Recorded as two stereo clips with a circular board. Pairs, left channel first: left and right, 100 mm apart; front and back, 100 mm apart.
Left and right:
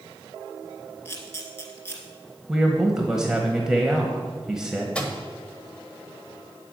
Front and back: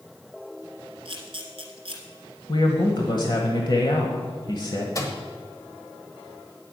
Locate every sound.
1.1 s a camera shutter: 150° left, 2 m
2.5 s a man speaking: 10° right, 1.2 m
5.0 s a microwave: 20° left, 1.2 m